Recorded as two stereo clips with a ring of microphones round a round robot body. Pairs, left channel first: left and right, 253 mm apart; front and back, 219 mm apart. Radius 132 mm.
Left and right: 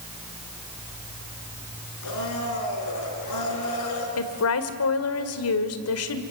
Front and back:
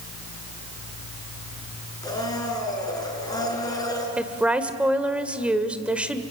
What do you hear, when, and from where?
2.0 s a blender: 75° left, 5 m
4.2 s a woman speaking: 95° left, 1.9 m